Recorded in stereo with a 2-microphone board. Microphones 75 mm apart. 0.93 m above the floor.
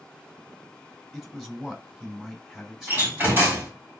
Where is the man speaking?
5° right (ahead or behind), 2.5 m.